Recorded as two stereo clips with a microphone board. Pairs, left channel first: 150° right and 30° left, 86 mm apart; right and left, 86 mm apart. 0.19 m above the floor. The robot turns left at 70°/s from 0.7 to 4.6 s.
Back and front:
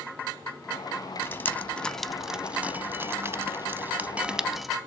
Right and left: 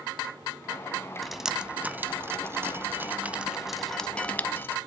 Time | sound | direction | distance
1.2 | dripping | straight behind | 0.6 m